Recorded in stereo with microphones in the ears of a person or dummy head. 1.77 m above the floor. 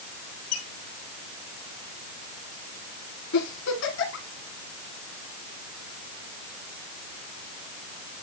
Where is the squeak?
65° left (ahead or behind), 2 m.